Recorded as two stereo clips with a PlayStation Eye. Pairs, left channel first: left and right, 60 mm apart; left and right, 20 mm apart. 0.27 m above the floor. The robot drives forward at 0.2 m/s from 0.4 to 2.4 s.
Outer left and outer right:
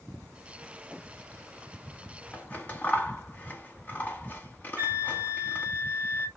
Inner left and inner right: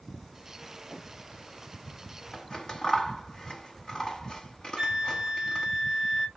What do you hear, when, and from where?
2.3 s scissors: 30° left (ahead or behind), 0.9 m
4.8 s a flute: 20° right (ahead or behind), 1.5 m